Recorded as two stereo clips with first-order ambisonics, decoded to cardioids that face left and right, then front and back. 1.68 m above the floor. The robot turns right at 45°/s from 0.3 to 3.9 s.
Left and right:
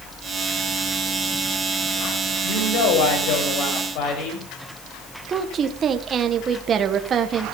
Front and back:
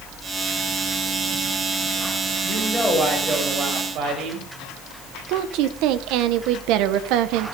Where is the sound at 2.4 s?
65° left, 7.5 m; by 4.5 s 130° left, 7.5 m.